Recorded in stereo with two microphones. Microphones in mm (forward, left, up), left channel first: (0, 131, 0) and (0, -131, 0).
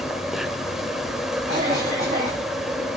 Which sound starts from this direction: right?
A cough, at 1.5 s.